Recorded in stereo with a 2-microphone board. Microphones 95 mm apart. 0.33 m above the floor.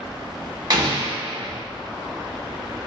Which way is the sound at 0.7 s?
50° right (ahead or behind).